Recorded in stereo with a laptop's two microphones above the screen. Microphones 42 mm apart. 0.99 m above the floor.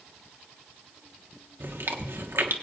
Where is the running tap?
No running tap in this recording.